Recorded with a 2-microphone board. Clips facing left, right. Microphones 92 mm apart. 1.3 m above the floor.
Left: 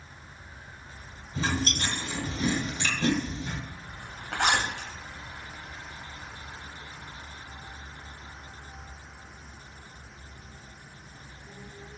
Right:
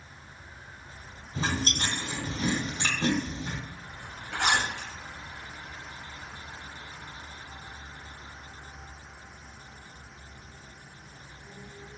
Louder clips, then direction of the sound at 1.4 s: Left 1 dB; 40° right (ahead or behind).